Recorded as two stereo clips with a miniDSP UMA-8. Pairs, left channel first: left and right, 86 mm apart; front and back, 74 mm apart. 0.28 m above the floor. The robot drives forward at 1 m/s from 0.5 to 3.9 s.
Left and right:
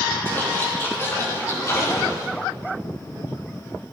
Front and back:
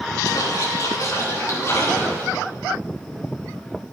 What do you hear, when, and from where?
0.2 s a splash: 30° left, 3.5 m; by 2.3 s 55° left, 2.5 m